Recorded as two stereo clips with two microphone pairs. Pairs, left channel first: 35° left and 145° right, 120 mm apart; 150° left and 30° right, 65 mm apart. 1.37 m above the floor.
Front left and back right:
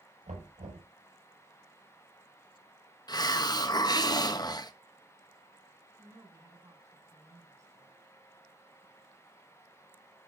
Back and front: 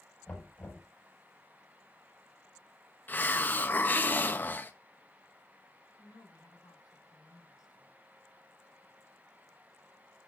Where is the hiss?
90° left, 0.7 m.